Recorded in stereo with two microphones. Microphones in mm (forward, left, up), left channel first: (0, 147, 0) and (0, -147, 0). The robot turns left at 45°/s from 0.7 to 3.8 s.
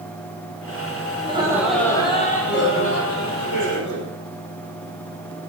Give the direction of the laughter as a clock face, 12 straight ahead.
5 o'clock.